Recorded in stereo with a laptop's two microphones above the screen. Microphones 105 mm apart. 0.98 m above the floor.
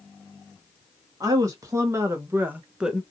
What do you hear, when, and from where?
1.2 s a woman speaking: 35° right (ahead or behind), 1.6 m; by 3.0 s centre (ahead or behind), 0.7 m